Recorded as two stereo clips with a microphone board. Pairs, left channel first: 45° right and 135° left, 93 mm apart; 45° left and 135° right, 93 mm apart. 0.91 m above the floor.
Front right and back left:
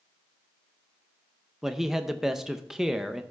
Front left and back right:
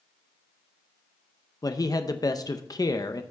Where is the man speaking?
50° left, 0.6 m.